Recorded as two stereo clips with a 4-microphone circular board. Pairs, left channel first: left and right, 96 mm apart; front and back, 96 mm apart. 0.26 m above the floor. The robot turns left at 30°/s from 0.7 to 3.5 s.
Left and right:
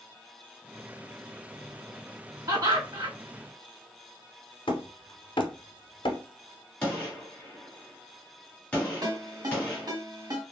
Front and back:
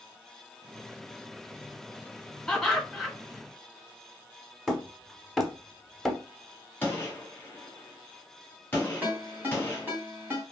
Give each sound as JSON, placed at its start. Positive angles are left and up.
{"t": 2.5, "sound": "laughter", "azimuth_deg": -80, "distance_m": 2.5}
{"t": 4.7, "sound": "hammering", "azimuth_deg": 90, "distance_m": 0.7}
{"t": 6.8, "sound": "a gunshot", "azimuth_deg": 30, "distance_m": 1.5}
{"t": 9.0, "sound": "a ringtone", "azimuth_deg": -115, "distance_m": 1.3}